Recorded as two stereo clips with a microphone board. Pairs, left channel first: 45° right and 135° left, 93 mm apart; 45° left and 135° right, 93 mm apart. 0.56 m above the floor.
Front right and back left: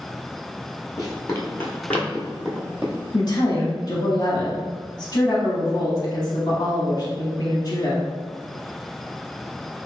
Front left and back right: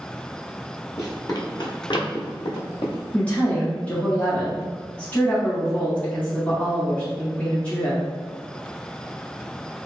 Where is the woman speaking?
25° right, 0.9 m.